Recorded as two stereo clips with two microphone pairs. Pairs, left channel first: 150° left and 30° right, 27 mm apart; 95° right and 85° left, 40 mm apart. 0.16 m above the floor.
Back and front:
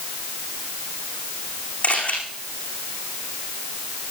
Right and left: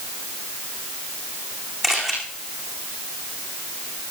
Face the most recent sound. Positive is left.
turn(degrees=170)